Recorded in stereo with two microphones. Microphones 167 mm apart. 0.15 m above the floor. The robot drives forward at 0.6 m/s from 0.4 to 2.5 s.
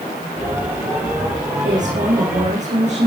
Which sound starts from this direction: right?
A woman speaking, at 1.6 s.